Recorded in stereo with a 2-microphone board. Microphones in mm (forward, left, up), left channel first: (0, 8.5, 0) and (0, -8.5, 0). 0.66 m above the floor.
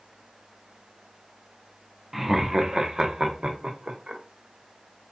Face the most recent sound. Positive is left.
turn(degrees=-65)  # may be behind; listen again after turning